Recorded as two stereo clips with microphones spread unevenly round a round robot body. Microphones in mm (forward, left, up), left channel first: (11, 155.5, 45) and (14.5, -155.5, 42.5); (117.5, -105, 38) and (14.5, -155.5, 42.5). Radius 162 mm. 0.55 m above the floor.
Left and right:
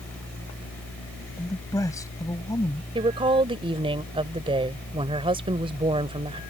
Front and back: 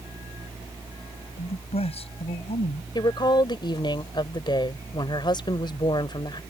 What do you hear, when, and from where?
1.4 s a man speaking: 10° left
3.0 s a woman speaking: 15° right